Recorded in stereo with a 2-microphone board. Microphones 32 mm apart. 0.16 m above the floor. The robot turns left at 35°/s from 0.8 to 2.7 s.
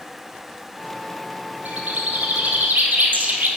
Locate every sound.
1.6 s a bird: 60° right, 1.2 m; by 3.5 s 95° right, 1.2 m